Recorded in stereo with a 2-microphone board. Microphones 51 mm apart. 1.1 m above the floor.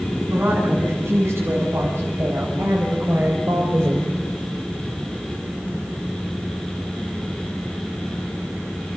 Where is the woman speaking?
65° right (ahead or behind), 7.5 m; by 4.2 s 55° right (ahead or behind), 4 m.